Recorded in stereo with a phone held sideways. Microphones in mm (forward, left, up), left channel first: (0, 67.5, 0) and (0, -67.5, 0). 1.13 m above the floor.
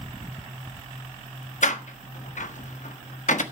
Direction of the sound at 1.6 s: 70° left (ahead or behind).